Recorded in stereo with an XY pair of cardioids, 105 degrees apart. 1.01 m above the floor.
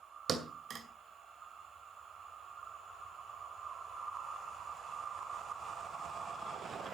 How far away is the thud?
About 2.5 m.